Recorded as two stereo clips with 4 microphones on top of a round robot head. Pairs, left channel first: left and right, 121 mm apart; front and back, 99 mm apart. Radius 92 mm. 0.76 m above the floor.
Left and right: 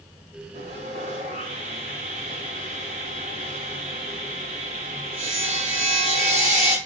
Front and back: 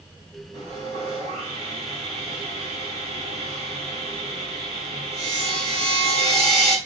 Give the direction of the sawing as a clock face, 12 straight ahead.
4 o'clock.